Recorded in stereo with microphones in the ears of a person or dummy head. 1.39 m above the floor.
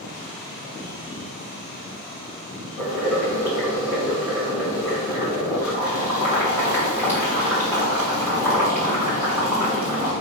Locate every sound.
2.8 s boiling: 5° right (ahead or behind), 2.5 m